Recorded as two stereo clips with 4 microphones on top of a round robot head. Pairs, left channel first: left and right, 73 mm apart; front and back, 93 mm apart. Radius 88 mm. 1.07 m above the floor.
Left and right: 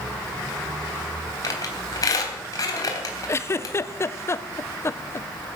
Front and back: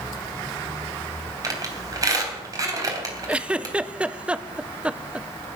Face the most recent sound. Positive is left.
turn(degrees=110)